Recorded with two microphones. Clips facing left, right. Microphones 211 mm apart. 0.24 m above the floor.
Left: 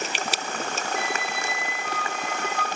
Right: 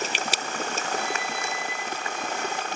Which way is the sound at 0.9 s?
80° left.